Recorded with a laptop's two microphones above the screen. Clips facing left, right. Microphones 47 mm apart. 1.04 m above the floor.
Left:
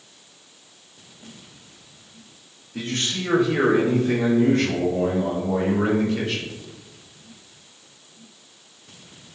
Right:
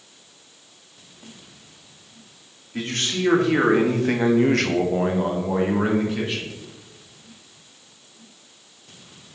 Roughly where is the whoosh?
No whoosh in this recording.